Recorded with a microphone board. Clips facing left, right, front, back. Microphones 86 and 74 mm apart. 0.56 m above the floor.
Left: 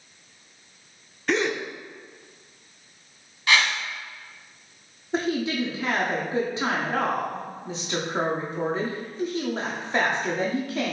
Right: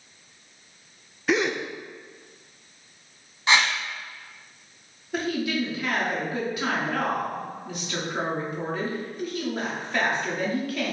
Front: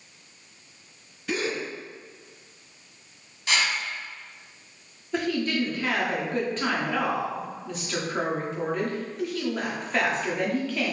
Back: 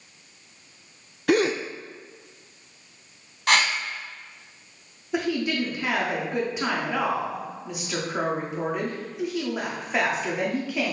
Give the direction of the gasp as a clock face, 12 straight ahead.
6 o'clock.